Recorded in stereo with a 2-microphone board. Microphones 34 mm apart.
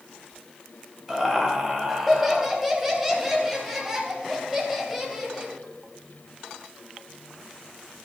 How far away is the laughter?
About 3 m.